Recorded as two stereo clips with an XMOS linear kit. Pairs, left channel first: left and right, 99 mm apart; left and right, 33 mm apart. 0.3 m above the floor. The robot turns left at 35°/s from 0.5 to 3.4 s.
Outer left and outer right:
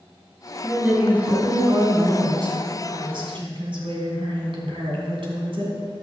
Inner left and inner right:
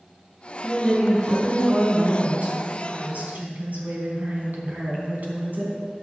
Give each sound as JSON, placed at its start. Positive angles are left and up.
{"t": 0.6, "sound": "a woman speaking", "azimuth_deg": 5, "distance_m": 3.0}